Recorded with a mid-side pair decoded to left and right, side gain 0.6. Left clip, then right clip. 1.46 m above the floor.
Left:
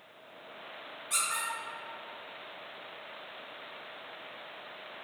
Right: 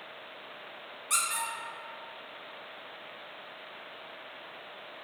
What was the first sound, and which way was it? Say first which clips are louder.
A squeak: right 2 dB; 55° right.